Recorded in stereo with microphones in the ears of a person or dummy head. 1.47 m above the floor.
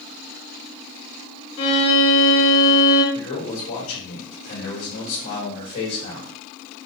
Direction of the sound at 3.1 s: 70° left (ahead or behind).